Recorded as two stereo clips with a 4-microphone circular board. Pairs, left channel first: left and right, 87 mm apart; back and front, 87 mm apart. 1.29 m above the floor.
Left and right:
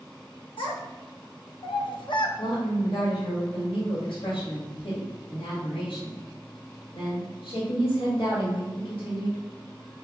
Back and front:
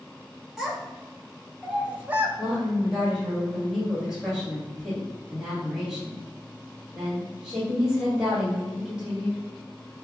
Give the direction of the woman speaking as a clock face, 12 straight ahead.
9 o'clock.